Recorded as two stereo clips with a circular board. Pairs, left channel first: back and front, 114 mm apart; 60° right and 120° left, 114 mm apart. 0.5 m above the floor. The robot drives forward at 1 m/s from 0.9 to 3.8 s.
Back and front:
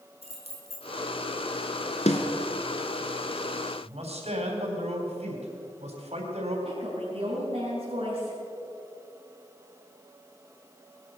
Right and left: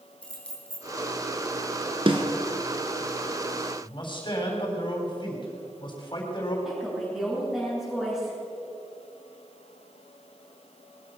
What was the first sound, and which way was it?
Keys jangling, 20° left.